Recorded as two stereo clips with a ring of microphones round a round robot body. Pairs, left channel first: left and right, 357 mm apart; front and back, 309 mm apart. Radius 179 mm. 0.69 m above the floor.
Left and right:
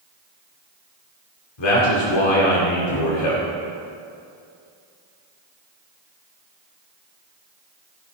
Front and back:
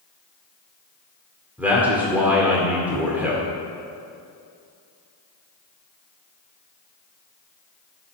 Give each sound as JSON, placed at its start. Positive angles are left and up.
{"t": 1.6, "sound": "a man speaking", "azimuth_deg": 95, "distance_m": 2.0}